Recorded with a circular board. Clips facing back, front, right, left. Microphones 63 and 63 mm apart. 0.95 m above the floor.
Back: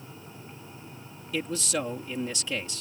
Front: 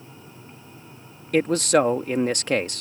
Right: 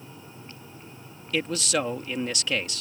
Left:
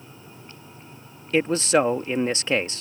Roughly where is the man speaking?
Ahead left.